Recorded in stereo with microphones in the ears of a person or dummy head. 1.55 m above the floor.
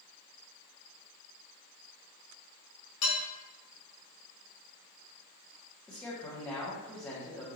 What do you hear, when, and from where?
3.0 s dishes clattering: 70° left (ahead or behind), 1.9 m
5.9 s a man speaking: 10° left (ahead or behind), 1.2 m